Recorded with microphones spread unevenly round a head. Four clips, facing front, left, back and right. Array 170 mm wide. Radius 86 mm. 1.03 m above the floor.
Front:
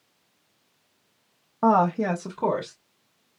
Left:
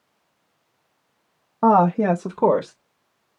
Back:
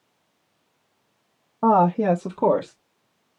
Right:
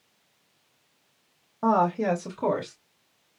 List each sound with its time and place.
1.6 s a woman speaking: 70° left, 0.7 m; by 2.8 s 130° left, 1.1 m